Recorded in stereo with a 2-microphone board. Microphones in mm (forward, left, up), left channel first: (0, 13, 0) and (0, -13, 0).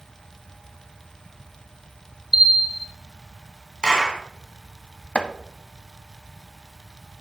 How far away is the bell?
About 1.0 m.